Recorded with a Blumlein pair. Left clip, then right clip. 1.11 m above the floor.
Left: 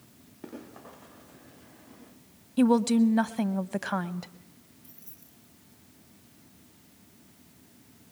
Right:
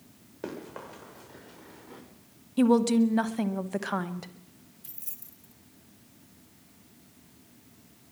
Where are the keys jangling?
55° right, 2.5 m.